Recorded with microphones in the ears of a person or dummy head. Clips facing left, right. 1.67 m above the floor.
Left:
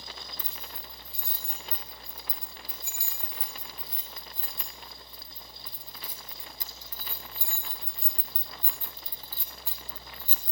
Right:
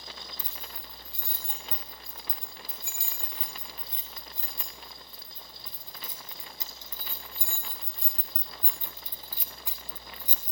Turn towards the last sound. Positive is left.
turn(degrees=-15)  # may be behind; listen again after turning